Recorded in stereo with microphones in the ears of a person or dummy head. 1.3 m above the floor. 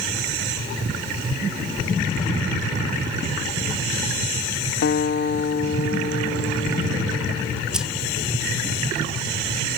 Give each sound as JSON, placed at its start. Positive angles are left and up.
{"t": 4.8, "sound": "a guitar", "side_deg": 55, "distance_m": 0.6}
{"t": 7.7, "sound": "keys jangling", "side_deg": -5, "distance_m": 1.0}